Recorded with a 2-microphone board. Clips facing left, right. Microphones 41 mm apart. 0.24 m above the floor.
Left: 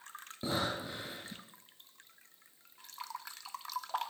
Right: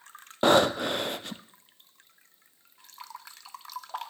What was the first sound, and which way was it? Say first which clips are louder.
Breathing: right 14 dB; 70° right (ahead or behind).